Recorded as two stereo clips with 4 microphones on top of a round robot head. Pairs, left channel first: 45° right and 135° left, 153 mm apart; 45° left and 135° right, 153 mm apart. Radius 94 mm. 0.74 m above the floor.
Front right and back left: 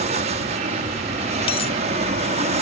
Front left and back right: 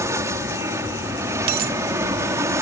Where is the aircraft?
160° left.